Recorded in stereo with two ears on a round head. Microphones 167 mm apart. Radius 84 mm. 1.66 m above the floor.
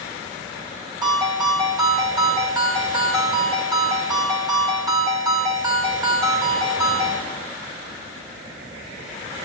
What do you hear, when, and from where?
1.0 s a ringtone: 20° right (ahead or behind), 5 m